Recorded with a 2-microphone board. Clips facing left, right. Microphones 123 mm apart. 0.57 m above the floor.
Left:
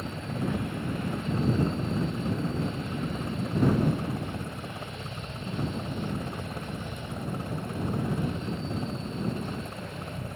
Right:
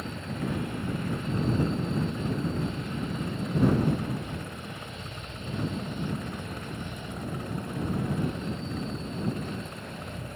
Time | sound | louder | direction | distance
0.0 | a helicopter | left 1 dB | 30° left (ahead or behind) | ?